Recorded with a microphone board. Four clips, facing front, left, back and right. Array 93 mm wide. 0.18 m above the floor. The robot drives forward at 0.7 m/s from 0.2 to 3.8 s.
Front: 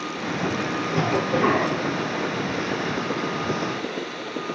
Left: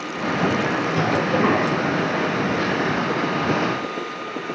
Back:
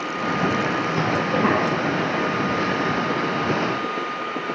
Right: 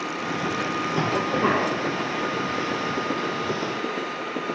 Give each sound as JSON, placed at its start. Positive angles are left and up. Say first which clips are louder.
{"t": 0.9, "sound": "a cough", "louder": "left 3 dB, front 2 dB", "azimuth_deg": 55, "distance_m": 4.5}